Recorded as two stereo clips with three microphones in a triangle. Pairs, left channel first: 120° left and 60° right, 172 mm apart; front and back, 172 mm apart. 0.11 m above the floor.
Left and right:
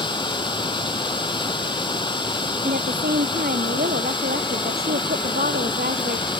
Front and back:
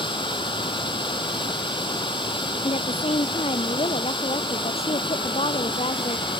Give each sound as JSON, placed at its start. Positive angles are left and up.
{"t": 0.0, "sound": "running water", "azimuth_deg": 60}
{"t": 2.6, "sound": "a woman speaking", "azimuth_deg": -50}